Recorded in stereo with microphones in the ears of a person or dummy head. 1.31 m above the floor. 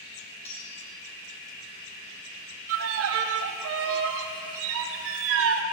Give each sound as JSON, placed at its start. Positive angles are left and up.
{"t": 0.5, "sound": "cutlery clinking", "side_deg": 15, "distance_m": 1.4}
{"t": 2.7, "sound": "a violin", "side_deg": -75, "distance_m": 0.5}